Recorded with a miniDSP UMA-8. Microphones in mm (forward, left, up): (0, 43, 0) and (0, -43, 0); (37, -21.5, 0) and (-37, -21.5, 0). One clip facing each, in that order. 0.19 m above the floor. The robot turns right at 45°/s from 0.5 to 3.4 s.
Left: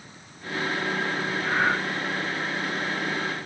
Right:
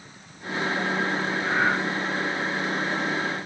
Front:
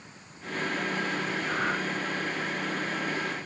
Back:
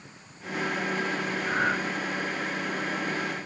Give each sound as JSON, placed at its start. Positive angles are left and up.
{"t": 1.4, "sound": "breathing", "azimuth_deg": 170, "distance_m": 3.5}